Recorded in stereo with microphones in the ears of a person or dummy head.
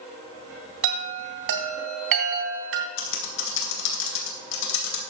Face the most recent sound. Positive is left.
turn(degrees=70)  # may be behind; listen again after turning